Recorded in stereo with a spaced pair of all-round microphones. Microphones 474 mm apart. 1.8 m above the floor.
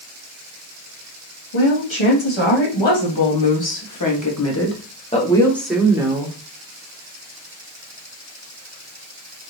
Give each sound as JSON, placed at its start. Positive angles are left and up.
{"t": 1.5, "sound": "a woman speaking", "side_deg": 80, "distance_m": 2.0}